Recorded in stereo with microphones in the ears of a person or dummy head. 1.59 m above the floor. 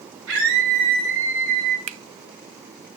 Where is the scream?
85° right, 7.5 m.